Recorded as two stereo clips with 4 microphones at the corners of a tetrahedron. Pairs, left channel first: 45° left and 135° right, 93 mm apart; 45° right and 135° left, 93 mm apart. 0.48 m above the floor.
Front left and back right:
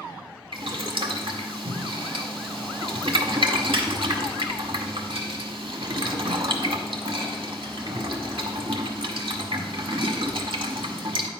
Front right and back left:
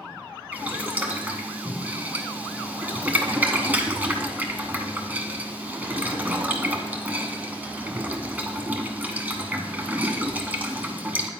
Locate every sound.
0.5 s boiling: 155° right, 0.8 m